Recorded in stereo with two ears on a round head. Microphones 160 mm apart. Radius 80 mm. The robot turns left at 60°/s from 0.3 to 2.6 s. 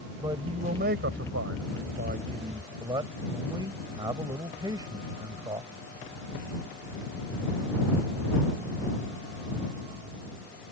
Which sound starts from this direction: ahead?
A man speaking, at 0.2 s.